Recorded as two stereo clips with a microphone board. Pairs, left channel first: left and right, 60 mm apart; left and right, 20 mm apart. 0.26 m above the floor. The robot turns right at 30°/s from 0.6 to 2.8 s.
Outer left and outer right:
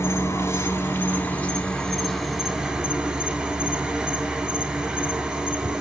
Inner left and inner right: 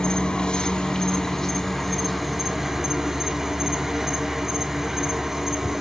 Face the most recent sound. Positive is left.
turn(degrees=-165)